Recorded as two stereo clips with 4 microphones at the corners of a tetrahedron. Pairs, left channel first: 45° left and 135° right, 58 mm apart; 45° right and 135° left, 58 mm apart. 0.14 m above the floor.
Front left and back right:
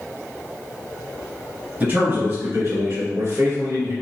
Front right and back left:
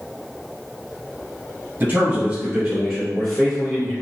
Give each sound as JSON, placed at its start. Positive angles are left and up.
{"t": 1.8, "sound": "a man speaking", "azimuth_deg": -175, "distance_m": 1.7}